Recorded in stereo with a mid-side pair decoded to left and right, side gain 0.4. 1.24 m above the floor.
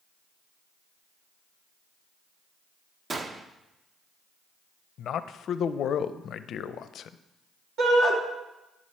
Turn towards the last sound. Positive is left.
turn(degrees=-65)